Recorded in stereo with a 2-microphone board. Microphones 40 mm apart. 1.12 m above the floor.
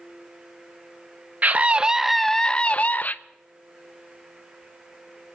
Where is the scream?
40° right (ahead or behind), 0.6 m; by 3.1 s 50° left (ahead or behind), 0.7 m.